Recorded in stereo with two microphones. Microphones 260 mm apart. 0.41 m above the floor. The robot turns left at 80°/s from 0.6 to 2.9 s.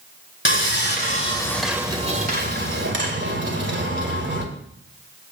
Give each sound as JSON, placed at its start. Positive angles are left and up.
{"t": 0.5, "sound": "sawing", "azimuth_deg": 85, "distance_m": 2.0}